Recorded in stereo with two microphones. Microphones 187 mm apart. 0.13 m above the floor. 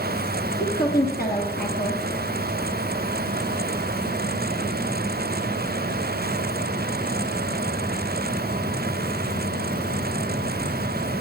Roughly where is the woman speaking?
Left.